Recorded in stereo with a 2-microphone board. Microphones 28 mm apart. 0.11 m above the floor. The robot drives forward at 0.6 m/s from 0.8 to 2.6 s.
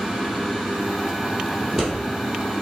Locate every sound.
1.6 s scissors: 10° right (ahead or behind), 2 m